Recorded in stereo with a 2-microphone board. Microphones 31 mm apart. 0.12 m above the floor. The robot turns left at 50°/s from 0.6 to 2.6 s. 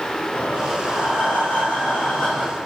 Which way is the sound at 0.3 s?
110° left.